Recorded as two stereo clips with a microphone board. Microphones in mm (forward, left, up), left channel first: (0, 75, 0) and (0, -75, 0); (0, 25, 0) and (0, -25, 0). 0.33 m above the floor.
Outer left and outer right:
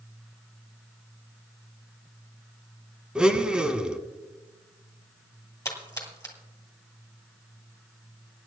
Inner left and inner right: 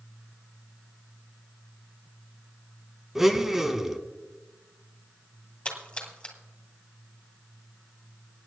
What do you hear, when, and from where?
3.1 s a blender: 5° right (ahead or behind), 0.8 m
5.7 s a splash: 20° left (ahead or behind), 2 m